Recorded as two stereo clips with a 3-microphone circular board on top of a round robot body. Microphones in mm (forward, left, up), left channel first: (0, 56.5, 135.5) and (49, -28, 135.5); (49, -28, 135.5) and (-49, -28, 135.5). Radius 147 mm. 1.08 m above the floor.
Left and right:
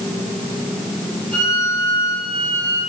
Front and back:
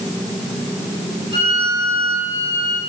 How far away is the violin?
About 6 m.